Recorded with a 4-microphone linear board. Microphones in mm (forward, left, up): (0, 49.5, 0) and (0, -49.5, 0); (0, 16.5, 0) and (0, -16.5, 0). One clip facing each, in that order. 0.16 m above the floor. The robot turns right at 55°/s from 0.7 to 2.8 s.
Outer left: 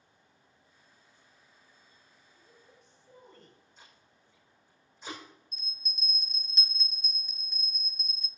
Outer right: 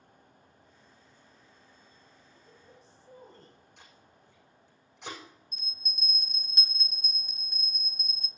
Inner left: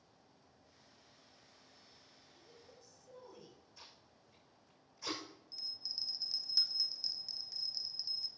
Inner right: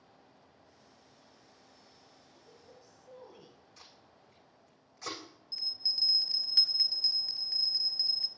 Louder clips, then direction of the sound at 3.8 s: Outer right 3 dB, inner right 3 dB; 80° right.